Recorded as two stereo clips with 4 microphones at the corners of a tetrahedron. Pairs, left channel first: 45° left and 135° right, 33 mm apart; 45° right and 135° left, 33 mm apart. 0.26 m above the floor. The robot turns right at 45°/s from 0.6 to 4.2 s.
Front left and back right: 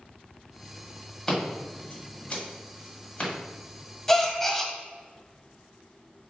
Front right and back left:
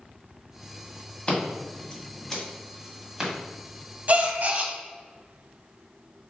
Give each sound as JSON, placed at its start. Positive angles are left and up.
{"t": 1.3, "sound": "scissors", "azimuth_deg": -25, "distance_m": 1.7}
{"t": 4.1, "sound": "a gasp", "azimuth_deg": 115, "distance_m": 0.6}